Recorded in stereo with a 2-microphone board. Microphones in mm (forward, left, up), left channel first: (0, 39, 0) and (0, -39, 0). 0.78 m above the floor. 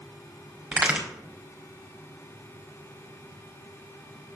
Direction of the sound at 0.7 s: 10° right (ahead or behind).